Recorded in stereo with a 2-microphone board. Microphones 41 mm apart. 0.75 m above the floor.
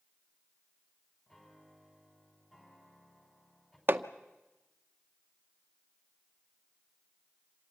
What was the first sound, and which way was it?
A piano, 15° left (ahead or behind).